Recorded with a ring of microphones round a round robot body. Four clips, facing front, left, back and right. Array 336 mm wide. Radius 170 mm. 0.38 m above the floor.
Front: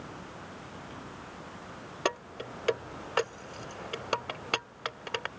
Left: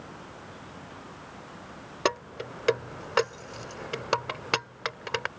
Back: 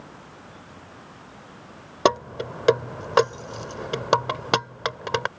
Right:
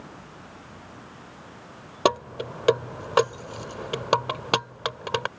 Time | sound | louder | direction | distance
2.0 | keys jangling | right 6 dB, back 12 dB | 155° right | ?